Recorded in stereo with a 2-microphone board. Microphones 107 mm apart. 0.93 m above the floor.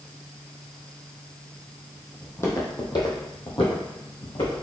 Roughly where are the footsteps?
Centre.